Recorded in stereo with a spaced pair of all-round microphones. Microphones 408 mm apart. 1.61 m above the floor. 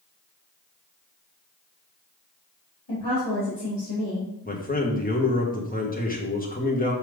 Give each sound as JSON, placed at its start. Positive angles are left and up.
{"t": 2.9, "sound": "a woman speaking", "side_deg": 80, "distance_m": 3.5}
{"t": 4.5, "sound": "a man speaking", "side_deg": 20, "distance_m": 1.7}